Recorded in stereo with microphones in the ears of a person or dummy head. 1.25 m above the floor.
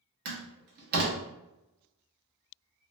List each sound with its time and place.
0.2 s a door slam: 55° right (ahead or behind), 0.8 m